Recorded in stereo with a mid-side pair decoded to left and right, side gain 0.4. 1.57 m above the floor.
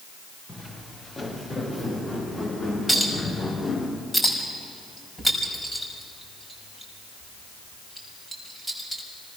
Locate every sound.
0.5 s footsteps: 20° left, 8 m; by 3.9 s 35° left, 7.5 m
2.9 s a clink: 5° left, 6 m